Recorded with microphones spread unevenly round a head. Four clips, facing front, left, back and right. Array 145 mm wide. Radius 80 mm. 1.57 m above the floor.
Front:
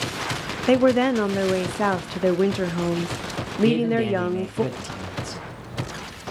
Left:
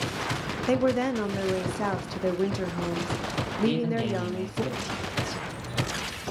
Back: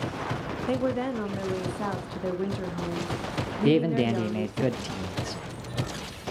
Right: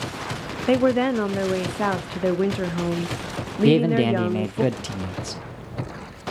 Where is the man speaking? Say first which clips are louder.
Right 10 dB, front 2 dB; 100° right, 0.7 m.